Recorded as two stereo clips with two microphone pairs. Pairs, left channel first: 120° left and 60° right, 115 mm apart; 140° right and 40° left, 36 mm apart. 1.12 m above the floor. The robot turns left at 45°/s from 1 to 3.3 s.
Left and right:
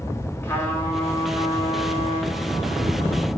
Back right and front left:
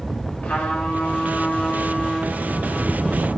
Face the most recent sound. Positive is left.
turn(degrees=85)